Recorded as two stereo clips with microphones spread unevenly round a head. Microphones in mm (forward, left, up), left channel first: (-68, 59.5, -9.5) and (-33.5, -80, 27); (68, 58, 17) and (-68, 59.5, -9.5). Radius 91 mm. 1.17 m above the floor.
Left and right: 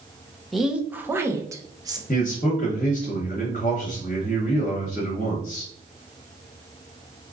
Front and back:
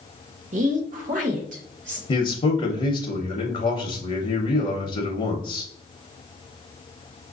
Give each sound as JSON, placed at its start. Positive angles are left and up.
{"t": 0.5, "sound": "a woman speaking", "azimuth_deg": -175, "distance_m": 0.7}
{"t": 2.1, "sound": "a man speaking", "azimuth_deg": 50, "distance_m": 0.8}